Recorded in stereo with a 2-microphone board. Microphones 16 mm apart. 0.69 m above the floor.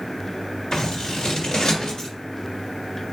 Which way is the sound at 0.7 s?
75° left (ahead or behind).